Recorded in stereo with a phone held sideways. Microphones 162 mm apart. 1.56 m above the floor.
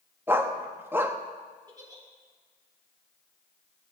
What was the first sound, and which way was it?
A dog barking, 15° right (ahead or behind).